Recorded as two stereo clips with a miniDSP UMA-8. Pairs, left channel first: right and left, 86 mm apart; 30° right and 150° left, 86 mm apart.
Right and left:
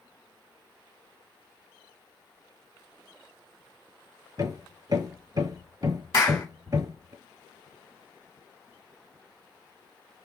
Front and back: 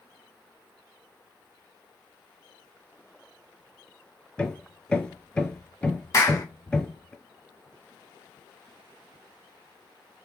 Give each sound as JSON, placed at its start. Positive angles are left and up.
{"t": 4.4, "sound": "hammering", "azimuth_deg": 50, "distance_m": 0.8}
{"t": 6.1, "sound": "a clap", "azimuth_deg": -70, "distance_m": 1.1}